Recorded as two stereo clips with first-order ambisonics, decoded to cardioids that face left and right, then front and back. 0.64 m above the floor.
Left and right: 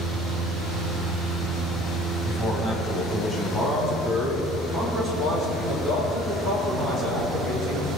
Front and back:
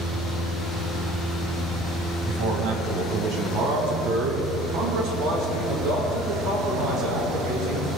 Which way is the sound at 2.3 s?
175° right.